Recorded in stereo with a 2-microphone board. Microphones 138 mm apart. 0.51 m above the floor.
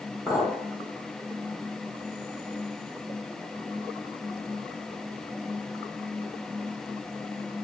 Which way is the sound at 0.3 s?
10° right (ahead or behind).